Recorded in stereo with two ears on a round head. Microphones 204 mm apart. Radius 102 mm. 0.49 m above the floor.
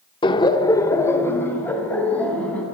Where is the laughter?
20° left (ahead or behind), 1.0 m; by 2.6 s 5° left (ahead or behind), 4 m.